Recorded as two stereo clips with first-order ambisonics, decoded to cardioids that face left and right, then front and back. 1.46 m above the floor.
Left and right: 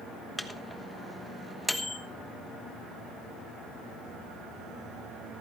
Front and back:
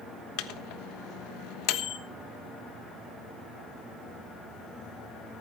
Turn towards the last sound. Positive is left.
turn(degrees=5)